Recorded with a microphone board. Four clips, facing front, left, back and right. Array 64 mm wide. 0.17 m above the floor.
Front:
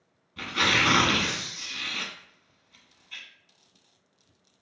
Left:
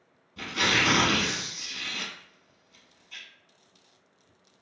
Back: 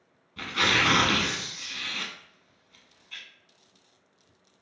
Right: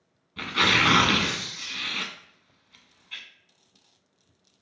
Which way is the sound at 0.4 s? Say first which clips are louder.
Right 3 dB, even; 90° right.